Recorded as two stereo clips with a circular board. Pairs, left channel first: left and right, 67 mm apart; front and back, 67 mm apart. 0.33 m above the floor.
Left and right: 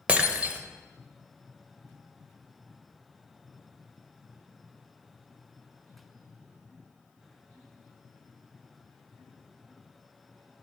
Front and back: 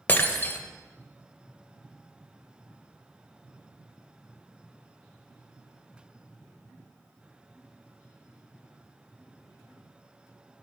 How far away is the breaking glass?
About 0.8 m.